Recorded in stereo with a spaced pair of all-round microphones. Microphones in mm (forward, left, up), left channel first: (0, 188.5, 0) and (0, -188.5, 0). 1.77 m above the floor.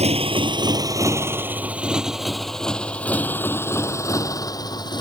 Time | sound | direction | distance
0.0 | a motorcycle | 15° right (ahead or behind) | ?